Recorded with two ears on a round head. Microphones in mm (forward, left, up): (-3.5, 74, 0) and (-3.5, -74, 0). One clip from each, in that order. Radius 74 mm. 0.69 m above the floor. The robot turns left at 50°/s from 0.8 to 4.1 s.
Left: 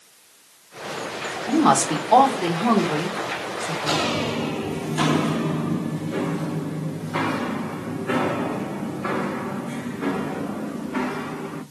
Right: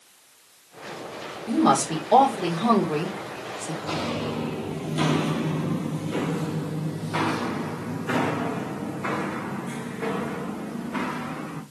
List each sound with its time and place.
1.5 s a woman speaking: 35° left (ahead or behind), 2 m; by 3.7 s 60° right (ahead or behind), 2 m
3.8 s footsteps: 50° left (ahead or behind), 1.1 m; by 11.6 s 80° right, 3.5 m